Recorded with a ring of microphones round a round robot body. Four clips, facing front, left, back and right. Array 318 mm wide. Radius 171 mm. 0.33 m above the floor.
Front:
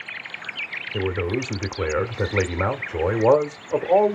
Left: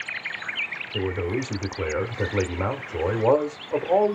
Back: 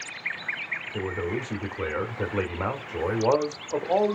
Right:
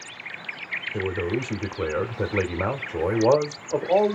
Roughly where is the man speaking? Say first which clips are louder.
Even, front 5 dB; ahead.